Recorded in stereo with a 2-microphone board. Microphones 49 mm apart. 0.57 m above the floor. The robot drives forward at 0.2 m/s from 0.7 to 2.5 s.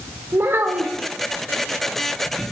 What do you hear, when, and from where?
0.3 s a child speaking: 60° right (ahead or behind), 1.1 m